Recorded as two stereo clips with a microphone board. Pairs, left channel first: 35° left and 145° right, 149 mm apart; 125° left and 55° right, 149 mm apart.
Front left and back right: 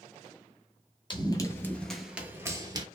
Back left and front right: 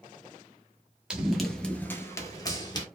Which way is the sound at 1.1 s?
25° left.